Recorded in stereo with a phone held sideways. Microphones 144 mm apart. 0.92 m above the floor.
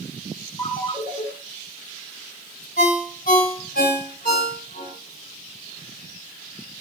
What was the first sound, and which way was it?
A ringtone, 15° left (ahead or behind).